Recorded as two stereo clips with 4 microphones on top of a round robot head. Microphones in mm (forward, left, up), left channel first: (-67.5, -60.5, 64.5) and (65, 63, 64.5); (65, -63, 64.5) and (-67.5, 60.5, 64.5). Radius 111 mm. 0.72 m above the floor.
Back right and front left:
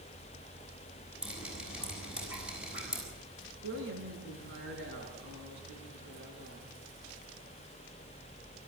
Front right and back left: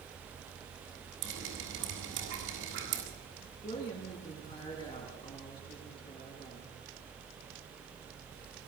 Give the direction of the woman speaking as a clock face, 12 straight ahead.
11 o'clock.